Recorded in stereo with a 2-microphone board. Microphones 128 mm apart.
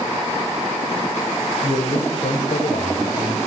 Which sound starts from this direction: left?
A man speaking, at 1.6 s.